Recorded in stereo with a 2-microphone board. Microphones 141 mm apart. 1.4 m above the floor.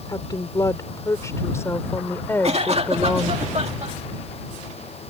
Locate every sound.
0.1 s a woman speaking: 25° left (ahead or behind); by 3.4 s 10° left (ahead or behind)
2.4 s a cough: 50° right (ahead or behind)